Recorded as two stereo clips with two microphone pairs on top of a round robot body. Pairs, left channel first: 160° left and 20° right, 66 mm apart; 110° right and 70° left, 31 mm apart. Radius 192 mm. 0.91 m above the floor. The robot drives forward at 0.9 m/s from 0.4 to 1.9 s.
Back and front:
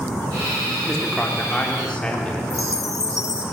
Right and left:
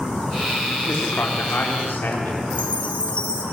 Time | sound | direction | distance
0.9 | a man speaking | 110° right | 3.5 m
2.5 | a chime | 160° right | 1.3 m